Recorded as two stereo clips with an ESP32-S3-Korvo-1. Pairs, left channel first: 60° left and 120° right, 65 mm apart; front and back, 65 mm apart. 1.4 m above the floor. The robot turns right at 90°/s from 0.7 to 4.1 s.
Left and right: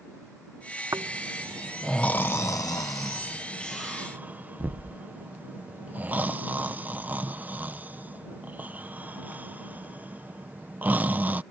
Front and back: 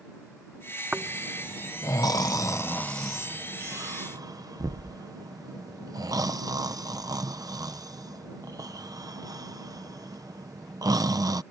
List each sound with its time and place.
0.9 s snoring: 110° right; by 11.4 s 175° left